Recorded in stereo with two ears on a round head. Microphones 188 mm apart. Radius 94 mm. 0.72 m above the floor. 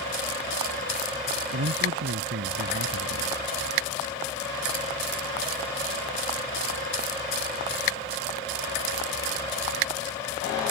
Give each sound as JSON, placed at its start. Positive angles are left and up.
{"t": 1.5, "sound": "a man speaking", "side_deg": -60}